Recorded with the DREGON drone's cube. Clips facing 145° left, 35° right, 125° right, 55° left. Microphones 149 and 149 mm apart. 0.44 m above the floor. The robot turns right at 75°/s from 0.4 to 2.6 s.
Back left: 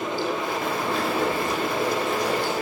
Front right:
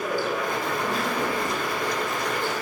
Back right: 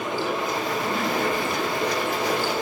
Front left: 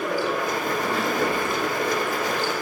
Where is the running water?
10° left, 6 m; by 2.6 s 175° left, 6 m.